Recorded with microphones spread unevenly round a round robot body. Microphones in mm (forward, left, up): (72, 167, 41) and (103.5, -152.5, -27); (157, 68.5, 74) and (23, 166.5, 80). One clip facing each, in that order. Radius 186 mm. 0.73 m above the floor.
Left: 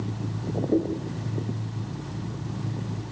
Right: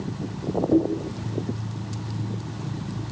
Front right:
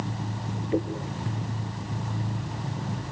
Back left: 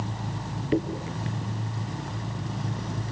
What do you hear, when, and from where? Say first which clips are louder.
0.7 s a dropped coin: right 3 dB, back left 2 dB; 160° right, 3 m